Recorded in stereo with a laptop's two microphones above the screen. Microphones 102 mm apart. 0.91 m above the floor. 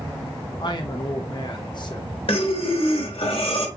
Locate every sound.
0.6 s a man speaking: 45° left (ahead or behind), 0.8 m
2.3 s breathing: 65° left (ahead or behind), 1.0 m